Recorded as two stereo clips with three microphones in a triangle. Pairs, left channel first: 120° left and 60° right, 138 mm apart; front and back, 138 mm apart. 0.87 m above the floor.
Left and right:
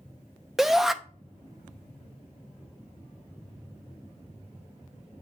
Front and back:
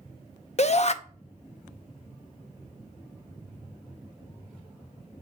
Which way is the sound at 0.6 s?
30° left.